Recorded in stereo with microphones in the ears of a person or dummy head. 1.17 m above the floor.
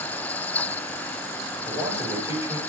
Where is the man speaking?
25° right (ahead or behind), 4 m.